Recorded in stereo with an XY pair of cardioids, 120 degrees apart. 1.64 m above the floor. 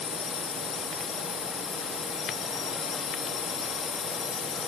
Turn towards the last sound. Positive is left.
turn(degrees=45)